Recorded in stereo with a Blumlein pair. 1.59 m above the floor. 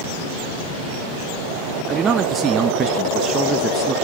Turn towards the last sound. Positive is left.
turn(degrees=-20)